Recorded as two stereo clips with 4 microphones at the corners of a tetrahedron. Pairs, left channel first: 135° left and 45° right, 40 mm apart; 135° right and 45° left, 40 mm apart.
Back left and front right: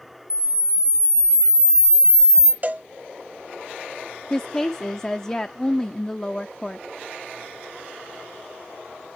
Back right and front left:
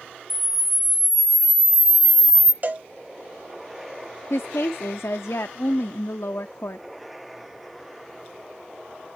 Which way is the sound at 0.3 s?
40° right.